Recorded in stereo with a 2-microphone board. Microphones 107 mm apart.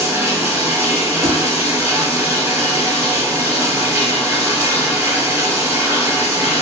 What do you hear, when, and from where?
0.0 s running water: 25° right (ahead or behind), 1.1 m
1.2 s a thud: 75° right (ahead or behind), 1.4 m